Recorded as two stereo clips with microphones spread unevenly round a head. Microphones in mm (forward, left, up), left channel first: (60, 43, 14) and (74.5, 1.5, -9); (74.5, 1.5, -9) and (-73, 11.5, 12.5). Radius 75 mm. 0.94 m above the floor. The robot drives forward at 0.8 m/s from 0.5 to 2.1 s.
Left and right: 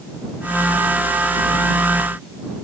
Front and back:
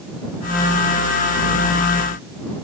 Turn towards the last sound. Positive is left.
No sound to turn to.